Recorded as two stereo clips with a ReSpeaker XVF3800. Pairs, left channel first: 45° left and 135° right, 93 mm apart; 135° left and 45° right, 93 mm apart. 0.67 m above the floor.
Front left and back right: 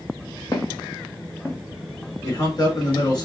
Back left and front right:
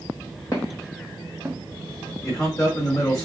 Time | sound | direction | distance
0.5 | footsteps | 80° left | 1.7 m
2.2 | a man speaking | 80° left | 2.5 m